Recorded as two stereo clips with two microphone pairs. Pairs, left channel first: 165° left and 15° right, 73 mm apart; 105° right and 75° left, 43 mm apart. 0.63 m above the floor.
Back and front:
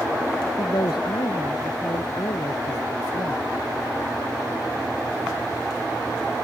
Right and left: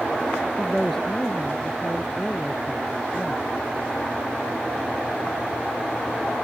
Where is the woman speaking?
175° left; by 3.4 s 170° left.